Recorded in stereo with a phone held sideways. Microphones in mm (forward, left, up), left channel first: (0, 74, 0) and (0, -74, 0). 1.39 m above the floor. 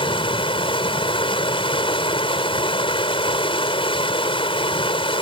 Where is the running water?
35° left (ahead or behind).